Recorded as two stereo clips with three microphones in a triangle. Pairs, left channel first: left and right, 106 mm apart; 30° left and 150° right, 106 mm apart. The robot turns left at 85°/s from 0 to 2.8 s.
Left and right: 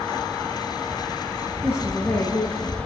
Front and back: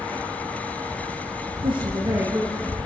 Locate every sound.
1.6 s a woman speaking: 160° right, 2.0 m; by 2.8 s 105° left, 2.0 m